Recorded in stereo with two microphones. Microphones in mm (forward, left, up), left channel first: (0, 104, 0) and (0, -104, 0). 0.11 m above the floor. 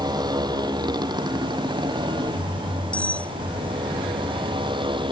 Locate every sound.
0.0 s a motorcycle: 20° right (ahead or behind); by 5.1 s 25° right (ahead or behind)
2.9 s cutlery clinking: 5° left (ahead or behind)